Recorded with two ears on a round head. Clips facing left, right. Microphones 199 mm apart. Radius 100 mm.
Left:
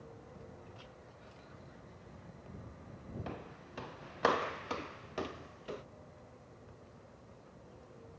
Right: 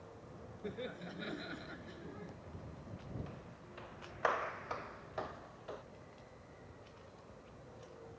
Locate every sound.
0.6 s laughter: 85° right; by 2.4 s 70° right (ahead or behind)
3.3 s footsteps: 70° left (ahead or behind); by 5.8 s 35° left (ahead or behind)